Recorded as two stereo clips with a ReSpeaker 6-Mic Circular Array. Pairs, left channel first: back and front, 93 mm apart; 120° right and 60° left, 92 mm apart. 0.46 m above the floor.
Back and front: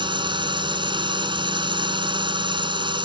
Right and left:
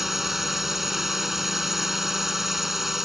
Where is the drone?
25° right.